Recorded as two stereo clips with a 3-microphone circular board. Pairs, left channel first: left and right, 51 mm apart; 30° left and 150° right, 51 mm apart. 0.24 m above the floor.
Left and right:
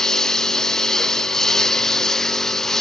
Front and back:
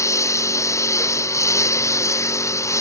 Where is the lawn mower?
10° left.